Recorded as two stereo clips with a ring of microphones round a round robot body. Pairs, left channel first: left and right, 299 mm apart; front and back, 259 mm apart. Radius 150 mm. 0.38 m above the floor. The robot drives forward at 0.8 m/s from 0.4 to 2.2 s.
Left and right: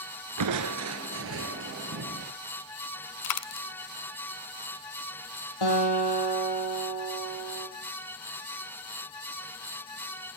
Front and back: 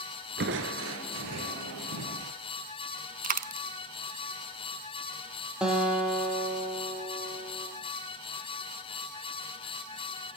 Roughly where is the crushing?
Behind right.